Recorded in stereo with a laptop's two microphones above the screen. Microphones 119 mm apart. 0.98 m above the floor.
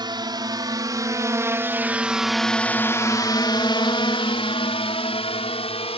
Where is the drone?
40° right (ahead or behind); by 6.0 s 55° left (ahead or behind).